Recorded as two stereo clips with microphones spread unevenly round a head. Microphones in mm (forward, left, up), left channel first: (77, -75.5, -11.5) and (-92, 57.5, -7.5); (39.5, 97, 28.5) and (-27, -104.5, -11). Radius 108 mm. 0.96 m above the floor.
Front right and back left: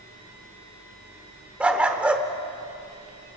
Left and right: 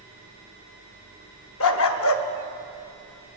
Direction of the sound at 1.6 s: 60° left.